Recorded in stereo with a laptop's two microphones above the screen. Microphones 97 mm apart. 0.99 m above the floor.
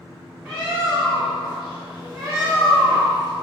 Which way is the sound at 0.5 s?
10° right (ahead or behind).